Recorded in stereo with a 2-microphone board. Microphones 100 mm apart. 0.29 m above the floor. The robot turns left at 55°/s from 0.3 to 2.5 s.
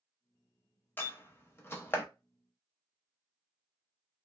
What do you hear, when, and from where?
1.0 s a door slam: 20° left (ahead or behind), 0.6 m